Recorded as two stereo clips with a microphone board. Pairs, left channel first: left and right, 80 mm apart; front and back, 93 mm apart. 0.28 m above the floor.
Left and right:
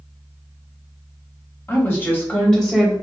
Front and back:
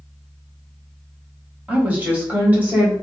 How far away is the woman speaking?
About 1.6 m.